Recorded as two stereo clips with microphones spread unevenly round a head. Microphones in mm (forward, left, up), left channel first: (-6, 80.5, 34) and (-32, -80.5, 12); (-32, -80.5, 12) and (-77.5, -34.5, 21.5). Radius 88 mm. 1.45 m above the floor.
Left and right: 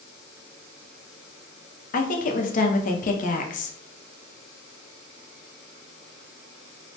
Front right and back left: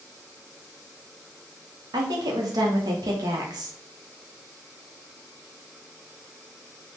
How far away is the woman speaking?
About 0.5 m.